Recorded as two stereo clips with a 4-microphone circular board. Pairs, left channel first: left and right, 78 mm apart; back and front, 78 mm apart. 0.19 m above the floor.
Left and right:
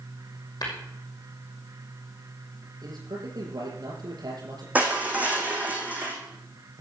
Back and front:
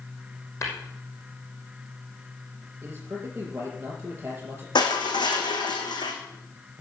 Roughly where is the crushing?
Behind.